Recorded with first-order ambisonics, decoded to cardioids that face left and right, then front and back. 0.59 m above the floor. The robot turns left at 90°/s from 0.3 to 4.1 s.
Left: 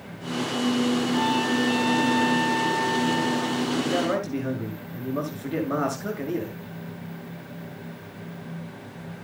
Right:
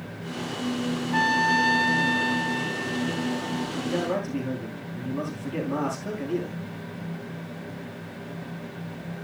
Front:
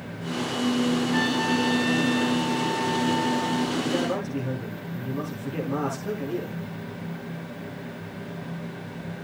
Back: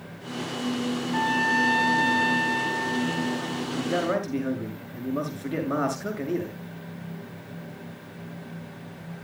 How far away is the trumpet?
About 5 m.